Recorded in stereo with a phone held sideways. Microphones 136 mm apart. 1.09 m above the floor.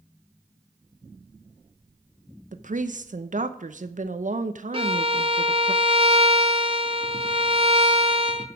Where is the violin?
40° right (ahead or behind), 0.9 m.